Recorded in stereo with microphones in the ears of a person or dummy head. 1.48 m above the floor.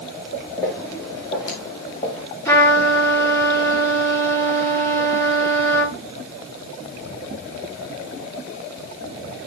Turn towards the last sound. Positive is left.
turn(degrees=20)  # may be behind; listen again after turning